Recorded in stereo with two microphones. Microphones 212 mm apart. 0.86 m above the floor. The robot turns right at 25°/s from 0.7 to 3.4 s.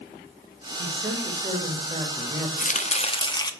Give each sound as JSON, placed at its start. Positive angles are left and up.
{"t": 0.8, "sound": "a woman speaking", "azimuth_deg": -65, "distance_m": 1.5}
{"t": 2.6, "sound": "chopping", "side_deg": 40, "distance_m": 0.6}